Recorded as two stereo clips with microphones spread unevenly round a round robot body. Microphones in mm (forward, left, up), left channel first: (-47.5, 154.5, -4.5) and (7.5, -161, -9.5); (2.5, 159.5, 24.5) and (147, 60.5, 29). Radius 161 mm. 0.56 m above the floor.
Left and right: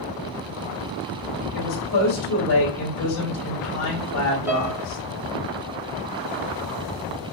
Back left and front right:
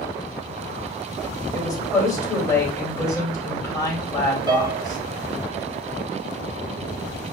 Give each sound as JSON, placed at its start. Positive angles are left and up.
{"t": 1.5, "sound": "a woman speaking", "azimuth_deg": 75, "distance_m": 2.0}
{"t": 4.5, "sound": "a piano", "azimuth_deg": -5, "distance_m": 0.9}